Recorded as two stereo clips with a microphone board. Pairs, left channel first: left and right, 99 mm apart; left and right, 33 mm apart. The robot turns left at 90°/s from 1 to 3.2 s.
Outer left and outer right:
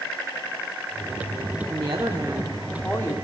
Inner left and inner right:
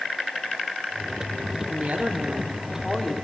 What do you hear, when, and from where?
1.7 s a woman speaking: 95° right, 1.2 m; by 3.1 s 135° left, 1.2 m